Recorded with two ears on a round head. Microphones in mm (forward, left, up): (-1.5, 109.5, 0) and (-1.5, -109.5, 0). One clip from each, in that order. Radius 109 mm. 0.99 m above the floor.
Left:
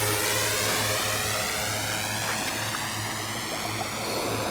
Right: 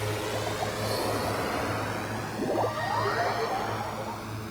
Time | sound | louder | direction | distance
0.0 | a drone | left 5 dB | 60° left (ahead or behind) | ?